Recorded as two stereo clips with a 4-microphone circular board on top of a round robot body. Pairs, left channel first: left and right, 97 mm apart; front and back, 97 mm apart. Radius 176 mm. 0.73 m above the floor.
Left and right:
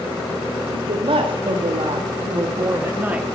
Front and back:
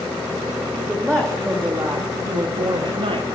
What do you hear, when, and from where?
0.7 s a woman speaking: 85° right, 2.5 m; by 3.3 s 170° right, 1.3 m